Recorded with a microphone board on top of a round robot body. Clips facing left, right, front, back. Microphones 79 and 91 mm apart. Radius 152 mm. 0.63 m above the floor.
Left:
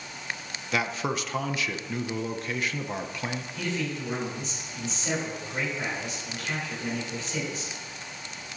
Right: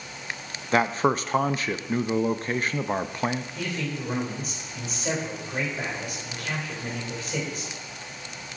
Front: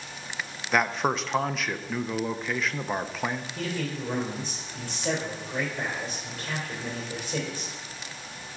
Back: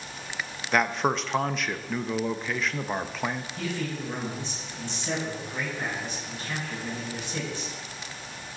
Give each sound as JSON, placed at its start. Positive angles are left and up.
{"t": 0.7, "sound": "a man speaking", "azimuth_deg": -85, "distance_m": 0.6}
{"t": 3.5, "sound": "a man speaking", "azimuth_deg": -45, "distance_m": 3.0}